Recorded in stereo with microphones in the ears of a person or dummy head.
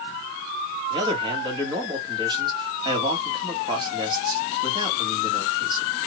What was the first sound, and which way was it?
A man speaking, 30° right (ahead or behind).